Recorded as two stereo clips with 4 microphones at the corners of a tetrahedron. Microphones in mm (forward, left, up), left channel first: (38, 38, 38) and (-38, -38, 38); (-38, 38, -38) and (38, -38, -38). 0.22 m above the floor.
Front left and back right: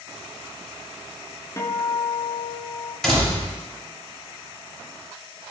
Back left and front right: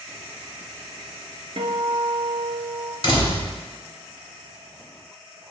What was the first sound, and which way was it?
A guitar, 15° right.